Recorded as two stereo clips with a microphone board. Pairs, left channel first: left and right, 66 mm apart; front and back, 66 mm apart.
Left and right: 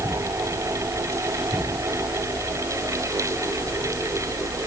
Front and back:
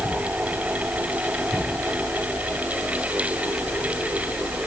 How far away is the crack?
I don't hear a crack.